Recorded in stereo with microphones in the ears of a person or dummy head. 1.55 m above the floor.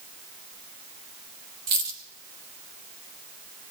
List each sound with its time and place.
1.7 s a dropped coin: 20° right (ahead or behind), 1.2 m